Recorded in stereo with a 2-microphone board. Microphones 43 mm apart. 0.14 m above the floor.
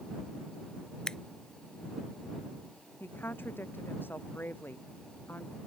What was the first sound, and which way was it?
Scissors, 15° left (ahead or behind).